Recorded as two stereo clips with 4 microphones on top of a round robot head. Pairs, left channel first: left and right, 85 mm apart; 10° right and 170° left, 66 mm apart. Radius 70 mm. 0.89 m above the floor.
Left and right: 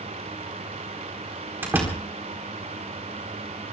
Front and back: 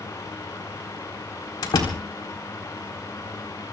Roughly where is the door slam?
Ahead.